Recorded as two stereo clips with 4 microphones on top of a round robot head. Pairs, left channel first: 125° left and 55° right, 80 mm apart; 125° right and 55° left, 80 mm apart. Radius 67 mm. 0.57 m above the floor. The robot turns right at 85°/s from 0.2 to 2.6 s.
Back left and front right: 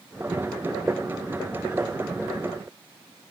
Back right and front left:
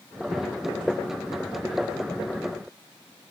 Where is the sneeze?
No sneeze in this recording.